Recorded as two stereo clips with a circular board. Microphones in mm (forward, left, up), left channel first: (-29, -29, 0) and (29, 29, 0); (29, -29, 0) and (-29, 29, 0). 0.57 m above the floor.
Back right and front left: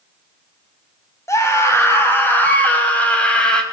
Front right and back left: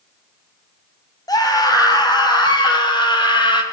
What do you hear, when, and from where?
1.3 s a scream: 85° right, 3.5 m; by 3.6 s 55° right, 3.5 m